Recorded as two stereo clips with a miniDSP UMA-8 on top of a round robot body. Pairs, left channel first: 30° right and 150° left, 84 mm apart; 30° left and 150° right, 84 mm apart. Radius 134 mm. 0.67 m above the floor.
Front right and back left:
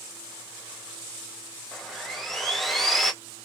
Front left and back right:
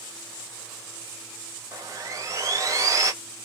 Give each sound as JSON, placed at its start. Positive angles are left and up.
{"t": 1.7, "sound": "sawing", "azimuth_deg": -115, "distance_m": 1.0}